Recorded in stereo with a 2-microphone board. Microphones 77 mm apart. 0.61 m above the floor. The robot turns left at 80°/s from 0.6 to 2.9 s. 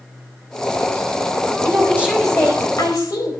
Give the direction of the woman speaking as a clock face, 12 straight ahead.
4 o'clock.